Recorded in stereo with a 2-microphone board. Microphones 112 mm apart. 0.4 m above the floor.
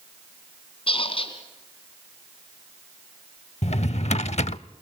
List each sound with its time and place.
0.9 s a squeak: 55° left (ahead or behind), 3 m
3.6 s a drawer: 80° left, 0.5 m